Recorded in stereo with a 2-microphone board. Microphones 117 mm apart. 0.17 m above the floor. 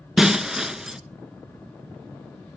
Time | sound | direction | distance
0.2 | breaking glass | 5° right (ahead or behind) | 0.9 m